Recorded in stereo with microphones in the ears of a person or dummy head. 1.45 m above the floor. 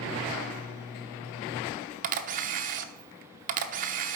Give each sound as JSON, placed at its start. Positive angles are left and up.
{"t": 2.0, "sound": "a camera shutter", "side_deg": -45, "distance_m": 0.7}